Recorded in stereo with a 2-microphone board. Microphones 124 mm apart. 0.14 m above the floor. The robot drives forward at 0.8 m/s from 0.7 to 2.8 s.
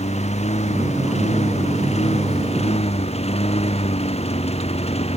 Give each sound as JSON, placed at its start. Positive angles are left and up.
{"t": 0.0, "sound": "a lawn mower", "side_deg": 65}